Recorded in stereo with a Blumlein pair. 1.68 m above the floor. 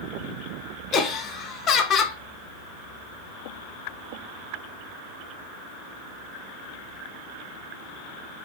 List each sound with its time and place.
0.9 s laughter: 30° left, 0.6 m